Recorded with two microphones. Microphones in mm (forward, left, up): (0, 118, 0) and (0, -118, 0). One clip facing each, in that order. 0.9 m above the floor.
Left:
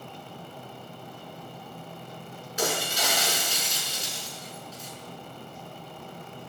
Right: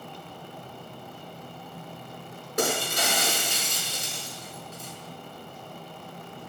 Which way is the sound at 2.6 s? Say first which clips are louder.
Right 2 dB; 60° right (ahead or behind).